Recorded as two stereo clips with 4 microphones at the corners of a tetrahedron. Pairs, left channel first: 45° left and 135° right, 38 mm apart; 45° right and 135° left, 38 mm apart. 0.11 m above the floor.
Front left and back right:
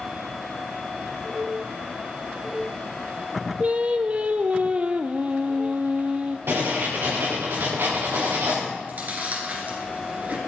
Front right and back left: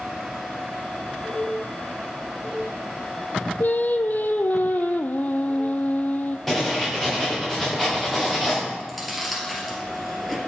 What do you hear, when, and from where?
3.6 s singing: 80° right, 0.7 m
6.5 s writing: 135° right, 4 m
8.8 s chewing: 140° right, 2 m